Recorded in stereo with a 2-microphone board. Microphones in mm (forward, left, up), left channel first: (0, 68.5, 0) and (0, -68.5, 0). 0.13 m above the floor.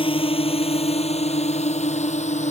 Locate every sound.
0.0 s a drone: 40° left (ahead or behind); by 2.5 s 60° left (ahead or behind)